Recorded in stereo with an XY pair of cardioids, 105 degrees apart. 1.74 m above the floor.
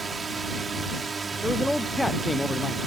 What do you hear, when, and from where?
0.0 s a drone: 35° right
1.4 s a man speaking: 5° left